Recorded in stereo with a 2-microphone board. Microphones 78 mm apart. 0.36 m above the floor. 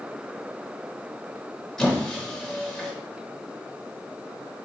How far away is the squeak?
About 1.0 m.